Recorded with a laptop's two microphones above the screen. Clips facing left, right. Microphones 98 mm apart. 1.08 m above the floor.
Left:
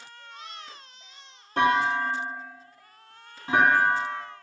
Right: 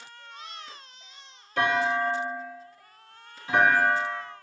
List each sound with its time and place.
1.6 s a clunk: 40° left (ahead or behind), 2 m